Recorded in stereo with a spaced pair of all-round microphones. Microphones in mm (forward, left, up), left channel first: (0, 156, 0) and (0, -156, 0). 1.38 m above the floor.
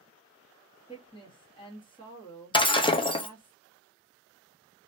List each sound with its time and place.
0.9 s a woman speaking: 15° left (ahead or behind), 2 m
2.5 s breaking glass: 15° left (ahead or behind), 0.7 m